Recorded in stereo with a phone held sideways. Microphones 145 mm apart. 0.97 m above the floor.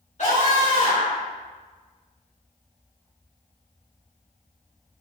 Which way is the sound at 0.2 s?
55° left (ahead or behind).